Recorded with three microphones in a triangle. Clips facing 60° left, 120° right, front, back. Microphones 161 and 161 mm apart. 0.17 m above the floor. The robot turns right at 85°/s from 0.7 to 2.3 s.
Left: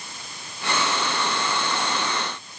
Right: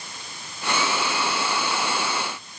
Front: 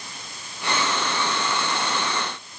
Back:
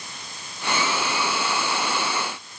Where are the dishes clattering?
No dishes clattering in this recording.